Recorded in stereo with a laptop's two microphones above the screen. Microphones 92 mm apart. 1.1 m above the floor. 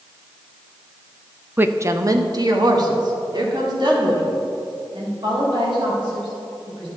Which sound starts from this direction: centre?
A woman speaking, at 1.6 s.